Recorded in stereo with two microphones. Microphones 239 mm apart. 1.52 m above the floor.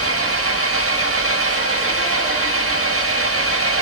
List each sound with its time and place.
0.0 s an engine running: 90° right, 9 m